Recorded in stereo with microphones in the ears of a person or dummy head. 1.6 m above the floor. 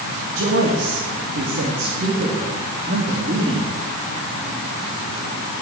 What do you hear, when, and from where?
0.3 s a man speaking: 70° right (ahead or behind), 2.5 m; by 3.8 s 35° right (ahead or behind), 3 m